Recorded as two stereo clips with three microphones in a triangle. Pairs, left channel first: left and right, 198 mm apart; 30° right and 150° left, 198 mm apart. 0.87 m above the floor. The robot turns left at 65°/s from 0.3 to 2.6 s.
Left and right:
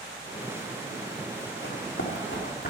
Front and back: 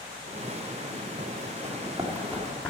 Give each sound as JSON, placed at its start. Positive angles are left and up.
{"t": 1.6, "sound": "running footsteps", "azimuth_deg": 100, "distance_m": 2.0}